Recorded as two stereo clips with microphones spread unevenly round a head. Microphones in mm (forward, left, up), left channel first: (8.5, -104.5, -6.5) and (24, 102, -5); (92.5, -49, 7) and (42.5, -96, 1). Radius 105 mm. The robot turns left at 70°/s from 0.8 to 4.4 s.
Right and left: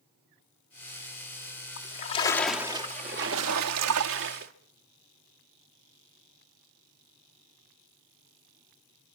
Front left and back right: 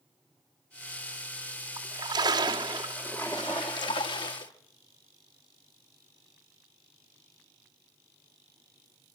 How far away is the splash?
About 2.5 m.